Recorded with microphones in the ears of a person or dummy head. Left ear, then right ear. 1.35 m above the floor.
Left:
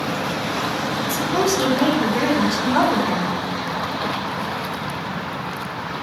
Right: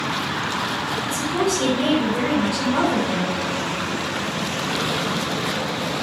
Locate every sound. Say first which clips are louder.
1.0 s a woman speaking: left 4 dB; 80° left, 5 m